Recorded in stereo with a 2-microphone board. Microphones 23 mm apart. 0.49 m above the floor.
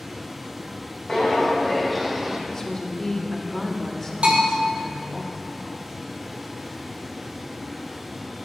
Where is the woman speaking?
25° left (ahead or behind), 1.1 m.